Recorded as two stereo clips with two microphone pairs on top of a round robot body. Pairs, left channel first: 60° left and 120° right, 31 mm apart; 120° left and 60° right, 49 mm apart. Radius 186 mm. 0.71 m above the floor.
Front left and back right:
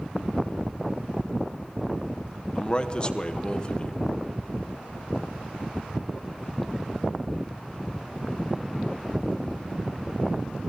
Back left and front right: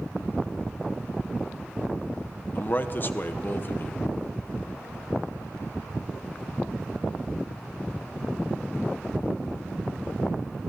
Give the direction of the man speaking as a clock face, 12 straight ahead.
8 o'clock.